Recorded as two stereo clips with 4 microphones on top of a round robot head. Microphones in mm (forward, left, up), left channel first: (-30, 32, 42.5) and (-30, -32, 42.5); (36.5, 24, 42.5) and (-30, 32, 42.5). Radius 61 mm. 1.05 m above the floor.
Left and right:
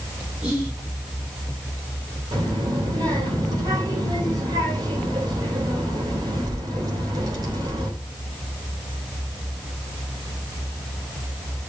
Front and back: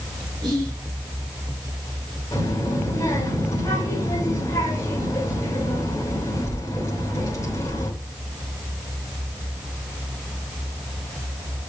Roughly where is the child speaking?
Ahead right.